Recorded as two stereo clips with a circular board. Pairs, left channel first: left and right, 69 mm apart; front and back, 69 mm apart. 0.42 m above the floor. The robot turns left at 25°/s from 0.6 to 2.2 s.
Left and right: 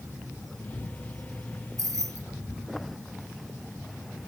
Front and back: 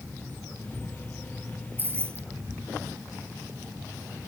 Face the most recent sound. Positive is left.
turn(degrees=-130)